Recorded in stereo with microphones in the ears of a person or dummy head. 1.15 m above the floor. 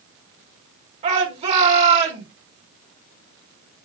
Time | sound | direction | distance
1.0 | a shout | 40° right (ahead or behind) | 4.5 m